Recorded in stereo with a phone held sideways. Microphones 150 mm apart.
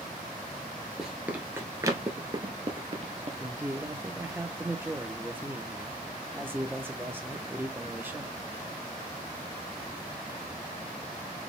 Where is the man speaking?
15° right (ahead or behind), 0.8 m.